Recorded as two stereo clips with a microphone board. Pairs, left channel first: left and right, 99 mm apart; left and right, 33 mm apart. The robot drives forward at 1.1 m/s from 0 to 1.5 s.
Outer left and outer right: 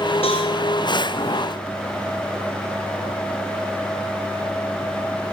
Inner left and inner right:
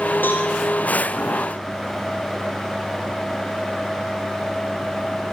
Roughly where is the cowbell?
Left.